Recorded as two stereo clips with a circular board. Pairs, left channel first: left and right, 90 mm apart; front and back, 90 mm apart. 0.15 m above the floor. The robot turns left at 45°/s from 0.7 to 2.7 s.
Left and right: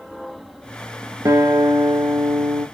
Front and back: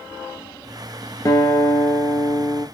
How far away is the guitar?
About 0.8 m.